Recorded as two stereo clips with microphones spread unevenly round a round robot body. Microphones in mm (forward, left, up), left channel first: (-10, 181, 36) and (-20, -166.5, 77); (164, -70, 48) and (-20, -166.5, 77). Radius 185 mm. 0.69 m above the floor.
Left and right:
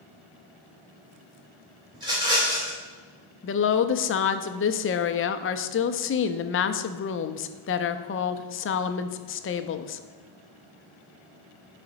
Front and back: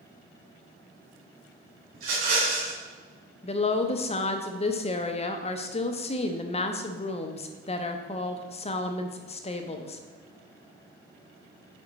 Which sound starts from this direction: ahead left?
A woman speaking, at 3.4 s.